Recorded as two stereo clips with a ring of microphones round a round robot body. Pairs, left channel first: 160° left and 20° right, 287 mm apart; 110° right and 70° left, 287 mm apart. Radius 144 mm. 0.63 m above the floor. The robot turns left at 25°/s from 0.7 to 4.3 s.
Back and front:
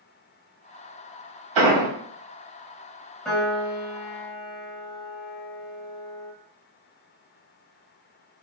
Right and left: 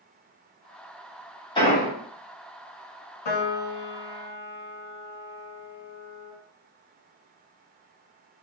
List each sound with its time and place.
1.6 s an explosion: 40° right, 1.3 m; by 1.9 s 45° right, 1.3 m
3.2 s a piano: 115° right, 0.7 m; by 6.3 s 140° right, 0.7 m